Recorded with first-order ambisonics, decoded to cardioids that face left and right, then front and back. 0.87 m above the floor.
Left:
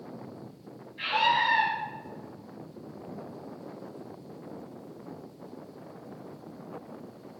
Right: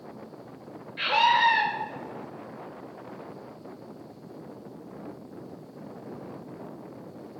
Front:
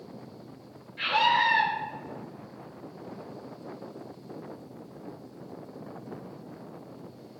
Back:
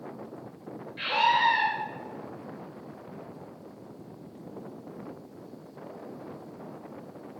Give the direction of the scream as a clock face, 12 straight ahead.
3 o'clock.